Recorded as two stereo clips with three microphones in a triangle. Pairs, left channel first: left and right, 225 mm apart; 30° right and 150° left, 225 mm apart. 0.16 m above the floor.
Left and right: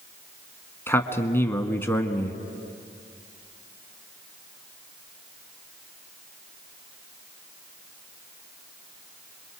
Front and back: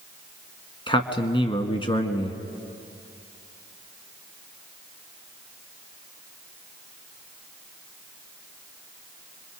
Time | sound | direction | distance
0.9 | a man speaking | 20° left | 1.4 m